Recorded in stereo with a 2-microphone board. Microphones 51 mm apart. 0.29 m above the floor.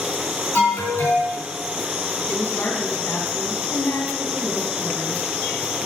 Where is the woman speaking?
45° left (ahead or behind), 2.5 m.